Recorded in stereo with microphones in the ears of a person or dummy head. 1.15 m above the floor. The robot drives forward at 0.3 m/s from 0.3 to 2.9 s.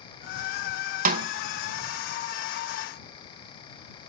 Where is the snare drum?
40° right (ahead or behind), 0.6 m; by 1.3 s 35° right (ahead or behind), 0.6 m.